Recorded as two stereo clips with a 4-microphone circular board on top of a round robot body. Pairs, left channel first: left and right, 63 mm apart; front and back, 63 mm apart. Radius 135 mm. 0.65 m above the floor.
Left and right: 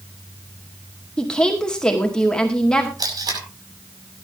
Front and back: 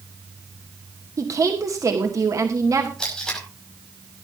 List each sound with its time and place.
1.2 s a woman speaking: 165° left, 2 m
3.0 s tape being pulled: 80° right, 6 m